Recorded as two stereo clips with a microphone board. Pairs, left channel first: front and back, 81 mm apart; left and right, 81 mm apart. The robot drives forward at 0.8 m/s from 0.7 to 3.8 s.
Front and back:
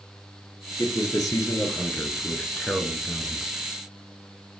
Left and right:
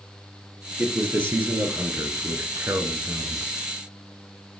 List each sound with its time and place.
0.8 s a man speaking: 25° right, 2.5 m; by 3.5 s 105° right, 1.6 m